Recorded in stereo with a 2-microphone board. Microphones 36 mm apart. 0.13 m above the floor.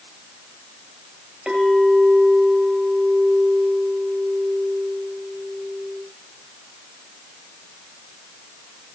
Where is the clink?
20° right (ahead or behind), 2 m.